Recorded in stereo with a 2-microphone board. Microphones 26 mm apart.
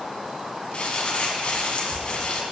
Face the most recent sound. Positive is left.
turn(degrees=40)  # may be behind; listen again after turning